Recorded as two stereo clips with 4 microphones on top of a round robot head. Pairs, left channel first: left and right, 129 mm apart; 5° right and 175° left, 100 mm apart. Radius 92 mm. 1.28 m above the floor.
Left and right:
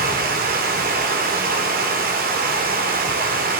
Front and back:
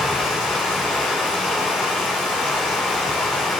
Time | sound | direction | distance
0.0 | running water | 85° right | 2.5 m